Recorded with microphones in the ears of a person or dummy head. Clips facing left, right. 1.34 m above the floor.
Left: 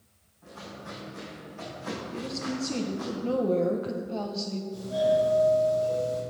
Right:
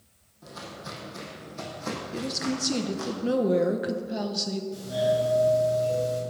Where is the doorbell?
30° right (ahead or behind), 4 m.